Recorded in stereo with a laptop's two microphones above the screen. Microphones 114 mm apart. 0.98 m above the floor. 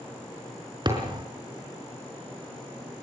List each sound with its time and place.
0.8 s a thud: 40° right (ahead or behind), 5 m